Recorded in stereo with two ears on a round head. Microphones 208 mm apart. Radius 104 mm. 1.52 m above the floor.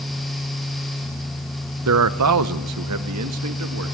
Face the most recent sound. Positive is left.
turn(degrees=-70)  # may be behind; listen again after turning